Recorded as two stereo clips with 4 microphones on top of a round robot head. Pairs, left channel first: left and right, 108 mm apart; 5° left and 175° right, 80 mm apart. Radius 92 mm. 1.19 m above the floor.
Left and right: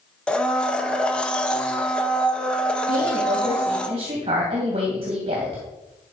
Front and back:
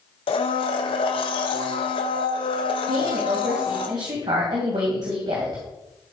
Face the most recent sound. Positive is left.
turn(degrees=-135)